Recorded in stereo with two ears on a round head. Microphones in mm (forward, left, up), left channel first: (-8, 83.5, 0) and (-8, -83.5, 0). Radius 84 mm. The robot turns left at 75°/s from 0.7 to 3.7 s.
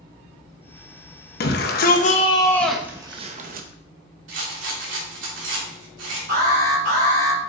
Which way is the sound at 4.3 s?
75° right (ahead or behind).